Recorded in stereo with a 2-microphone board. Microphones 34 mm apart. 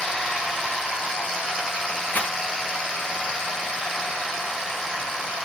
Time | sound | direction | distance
2.1 | a rattle | 60° left (ahead or behind) | 3.5 m